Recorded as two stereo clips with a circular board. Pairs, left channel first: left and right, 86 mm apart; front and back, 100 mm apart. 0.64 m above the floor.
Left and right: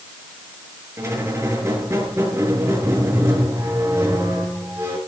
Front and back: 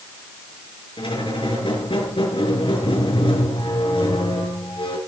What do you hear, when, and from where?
1.0 s a squeak: 35° right, 6 m